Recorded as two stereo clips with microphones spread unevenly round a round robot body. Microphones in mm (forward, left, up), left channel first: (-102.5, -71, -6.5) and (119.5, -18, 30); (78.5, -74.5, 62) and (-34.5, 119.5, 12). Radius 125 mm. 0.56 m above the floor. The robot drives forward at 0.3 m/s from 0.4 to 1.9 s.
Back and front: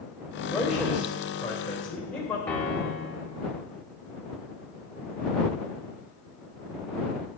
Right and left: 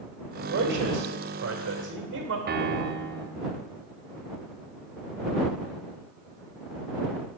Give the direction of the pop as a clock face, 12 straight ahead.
I don't hear a pop.